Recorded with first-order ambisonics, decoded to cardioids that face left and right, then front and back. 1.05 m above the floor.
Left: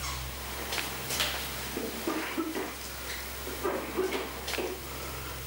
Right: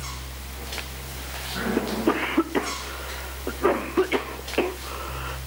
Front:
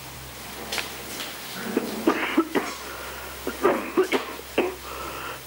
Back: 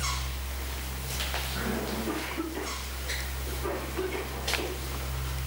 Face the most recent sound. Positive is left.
turn(degrees=-40)